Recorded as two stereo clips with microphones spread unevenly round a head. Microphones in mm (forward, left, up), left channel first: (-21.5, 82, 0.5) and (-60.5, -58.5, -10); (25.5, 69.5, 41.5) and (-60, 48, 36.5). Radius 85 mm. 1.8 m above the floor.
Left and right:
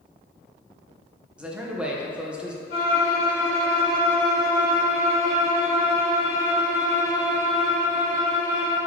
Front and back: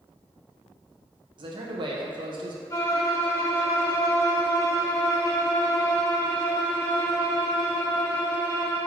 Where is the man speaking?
170° left, 1.3 m.